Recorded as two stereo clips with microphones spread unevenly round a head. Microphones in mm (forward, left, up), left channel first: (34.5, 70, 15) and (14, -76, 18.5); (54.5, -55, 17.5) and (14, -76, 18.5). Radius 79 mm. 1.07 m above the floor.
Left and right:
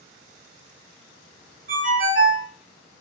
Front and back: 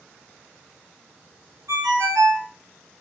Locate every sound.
1.7 s a ringtone: 140° right, 0.7 m